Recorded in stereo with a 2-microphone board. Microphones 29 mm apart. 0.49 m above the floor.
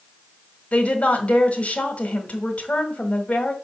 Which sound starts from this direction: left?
A woman speaking, at 0.7 s.